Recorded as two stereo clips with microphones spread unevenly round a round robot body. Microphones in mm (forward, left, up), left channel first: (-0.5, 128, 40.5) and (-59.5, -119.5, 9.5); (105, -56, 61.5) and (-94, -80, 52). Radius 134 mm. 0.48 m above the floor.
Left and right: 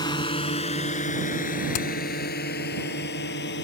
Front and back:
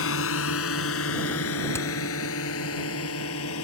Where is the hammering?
85° left.